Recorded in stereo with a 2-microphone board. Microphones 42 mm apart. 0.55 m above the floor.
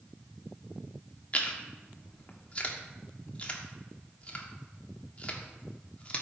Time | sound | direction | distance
1.3 | chewing | 30° left (ahead or behind) | 1.3 m